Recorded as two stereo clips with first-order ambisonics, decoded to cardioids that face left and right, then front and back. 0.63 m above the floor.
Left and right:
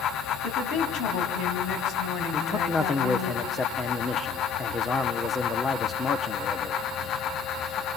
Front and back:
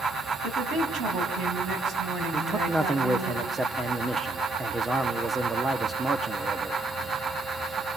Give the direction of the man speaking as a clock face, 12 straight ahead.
8 o'clock.